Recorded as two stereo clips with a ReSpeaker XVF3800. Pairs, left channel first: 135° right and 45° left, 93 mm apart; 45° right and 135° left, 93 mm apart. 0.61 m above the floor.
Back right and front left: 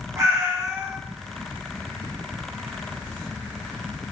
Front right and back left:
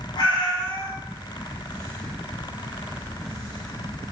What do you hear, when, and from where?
0.2 s a cat meowing: 10° right, 1.3 m